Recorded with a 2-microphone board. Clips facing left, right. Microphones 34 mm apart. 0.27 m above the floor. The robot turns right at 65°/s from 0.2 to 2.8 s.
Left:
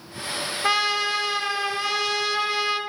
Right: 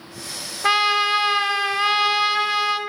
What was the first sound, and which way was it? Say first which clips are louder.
A trumpet: right 5 dB; 160° right.